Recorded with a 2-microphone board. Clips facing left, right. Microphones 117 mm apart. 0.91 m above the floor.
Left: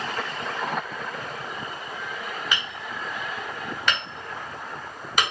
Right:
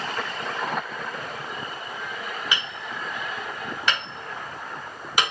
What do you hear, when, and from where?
2.5 s hammering: 5° right (ahead or behind), 1.2 m